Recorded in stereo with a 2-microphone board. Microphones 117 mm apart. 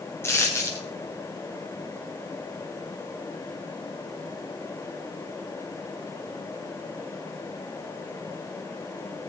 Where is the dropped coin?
20° left (ahead or behind), 5 m.